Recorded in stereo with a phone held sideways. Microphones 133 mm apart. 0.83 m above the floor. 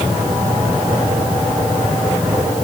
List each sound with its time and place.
Only background noise.